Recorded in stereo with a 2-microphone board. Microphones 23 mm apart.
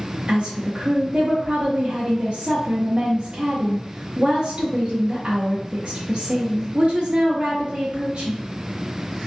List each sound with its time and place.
0.3 s a woman speaking: 55° right (ahead or behind), 0.8 m